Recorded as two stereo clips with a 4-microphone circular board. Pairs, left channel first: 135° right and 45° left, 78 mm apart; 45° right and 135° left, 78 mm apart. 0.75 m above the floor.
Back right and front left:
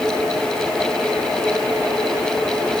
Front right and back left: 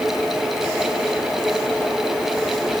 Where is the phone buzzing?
I don't hear a phone buzzing.